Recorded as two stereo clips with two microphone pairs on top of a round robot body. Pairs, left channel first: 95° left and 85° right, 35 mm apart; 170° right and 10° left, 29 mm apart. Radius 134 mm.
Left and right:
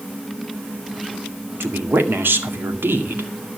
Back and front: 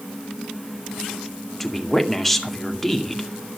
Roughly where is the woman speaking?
Right.